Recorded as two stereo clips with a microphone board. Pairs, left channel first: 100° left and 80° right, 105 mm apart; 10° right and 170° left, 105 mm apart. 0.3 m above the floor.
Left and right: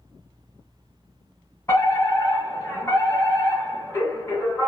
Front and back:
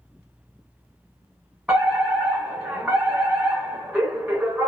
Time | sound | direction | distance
1.7 | a fire alarm | 105° left | 1.9 m